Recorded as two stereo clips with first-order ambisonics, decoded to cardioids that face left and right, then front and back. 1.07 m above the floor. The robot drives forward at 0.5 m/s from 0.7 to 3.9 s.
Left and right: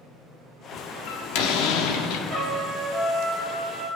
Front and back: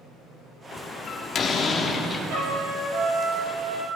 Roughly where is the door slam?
Ahead left.